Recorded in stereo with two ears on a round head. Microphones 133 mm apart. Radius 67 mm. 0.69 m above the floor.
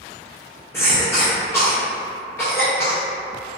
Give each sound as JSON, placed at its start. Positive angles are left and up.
{"t": 0.7, "sound": "a cough", "side_deg": 15, "distance_m": 0.7}